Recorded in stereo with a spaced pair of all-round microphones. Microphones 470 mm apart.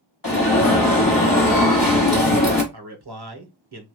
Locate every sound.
0.2 s an alarm: 45° left (ahead or behind), 1.4 m
2.7 s a man speaking: 55° right (ahead or behind), 0.9 m